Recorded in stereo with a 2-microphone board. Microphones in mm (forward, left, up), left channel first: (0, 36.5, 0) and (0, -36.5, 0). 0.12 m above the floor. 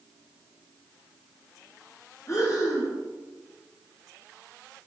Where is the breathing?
45° left (ahead or behind), 2.5 m.